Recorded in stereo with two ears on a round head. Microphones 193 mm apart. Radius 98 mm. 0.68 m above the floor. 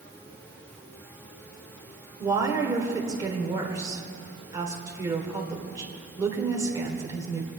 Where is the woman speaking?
15° right (ahead or behind), 2 m.